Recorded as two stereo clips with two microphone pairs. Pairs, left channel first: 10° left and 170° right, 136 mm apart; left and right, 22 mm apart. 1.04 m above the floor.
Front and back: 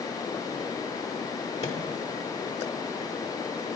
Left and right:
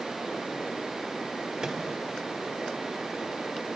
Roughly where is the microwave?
Ahead right.